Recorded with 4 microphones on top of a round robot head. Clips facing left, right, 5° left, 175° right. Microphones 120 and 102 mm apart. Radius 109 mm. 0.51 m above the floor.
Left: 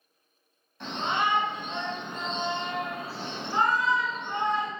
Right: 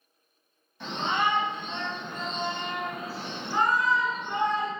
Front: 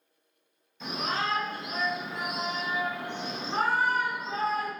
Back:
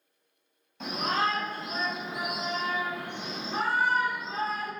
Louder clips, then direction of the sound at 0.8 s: Right 1 dB, back 3 dB; straight behind.